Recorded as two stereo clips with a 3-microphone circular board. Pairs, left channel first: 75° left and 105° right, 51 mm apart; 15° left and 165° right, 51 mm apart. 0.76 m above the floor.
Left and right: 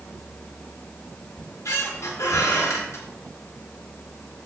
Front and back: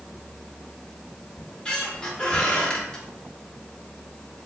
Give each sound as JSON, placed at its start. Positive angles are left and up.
{"t": 1.4, "sound": "a squeak", "azimuth_deg": 90, "distance_m": 0.6}